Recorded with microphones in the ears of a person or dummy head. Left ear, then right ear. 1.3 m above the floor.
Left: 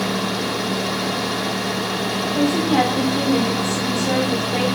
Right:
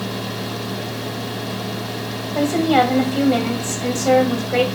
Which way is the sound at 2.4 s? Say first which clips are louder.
Right 3 dB; 70° right (ahead or behind).